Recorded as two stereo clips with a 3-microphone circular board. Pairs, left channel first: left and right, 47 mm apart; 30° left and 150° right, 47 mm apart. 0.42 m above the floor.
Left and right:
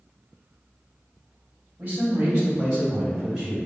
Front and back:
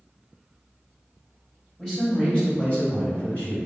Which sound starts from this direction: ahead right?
A man speaking, at 1.8 s.